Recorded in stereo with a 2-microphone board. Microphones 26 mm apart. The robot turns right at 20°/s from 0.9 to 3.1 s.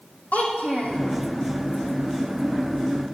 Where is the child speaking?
70° left (ahead or behind), 3 m; by 1.0 s 75° left (ahead or behind), 3 m.